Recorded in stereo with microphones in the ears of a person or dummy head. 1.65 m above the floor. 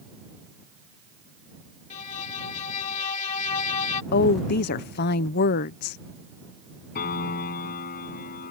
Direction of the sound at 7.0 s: 50° left (ahead or behind).